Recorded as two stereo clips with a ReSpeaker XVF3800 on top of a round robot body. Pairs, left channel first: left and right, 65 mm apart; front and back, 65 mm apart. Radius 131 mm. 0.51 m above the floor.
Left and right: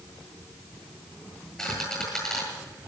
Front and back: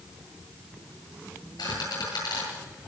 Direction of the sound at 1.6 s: 5° left.